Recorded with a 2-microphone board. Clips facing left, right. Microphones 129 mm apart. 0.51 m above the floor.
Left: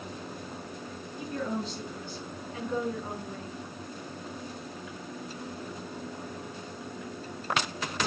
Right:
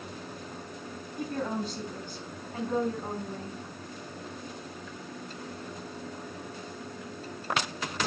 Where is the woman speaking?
50° right (ahead or behind), 3.5 m; by 3.6 s 35° right (ahead or behind), 5.5 m.